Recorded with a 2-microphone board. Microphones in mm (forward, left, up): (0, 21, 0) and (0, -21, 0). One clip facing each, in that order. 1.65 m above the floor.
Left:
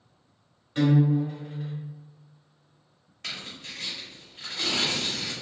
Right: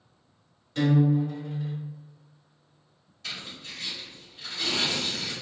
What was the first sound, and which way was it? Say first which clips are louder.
A guitar: left 1 dB; 25° left (ahead or behind).